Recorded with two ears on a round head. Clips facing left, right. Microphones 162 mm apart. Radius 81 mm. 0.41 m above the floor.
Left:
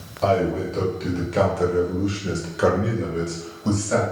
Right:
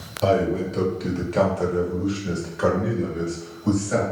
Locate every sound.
0.2 s a man speaking: 20° right (ahead or behind), 1.5 m; by 4.0 s 55° left (ahead or behind), 1.8 m